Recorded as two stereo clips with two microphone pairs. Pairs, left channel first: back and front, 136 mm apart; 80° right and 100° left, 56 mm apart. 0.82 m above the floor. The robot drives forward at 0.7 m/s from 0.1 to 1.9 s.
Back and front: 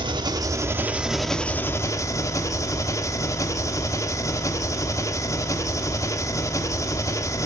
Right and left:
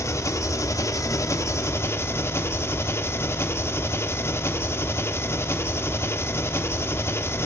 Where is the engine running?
55° right, 1.3 m; by 7.5 s 115° right, 1.2 m.